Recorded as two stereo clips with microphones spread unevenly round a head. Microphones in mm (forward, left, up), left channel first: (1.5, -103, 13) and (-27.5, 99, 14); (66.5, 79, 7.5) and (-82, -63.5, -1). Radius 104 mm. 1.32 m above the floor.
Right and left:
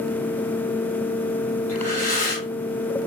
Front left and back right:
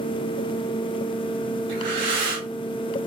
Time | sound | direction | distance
1.7 | breathing | 120° right | 1.0 m